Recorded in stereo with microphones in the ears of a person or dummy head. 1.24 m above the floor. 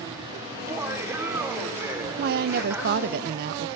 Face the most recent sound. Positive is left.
turn(degrees=-55)  # may be behind; listen again after turning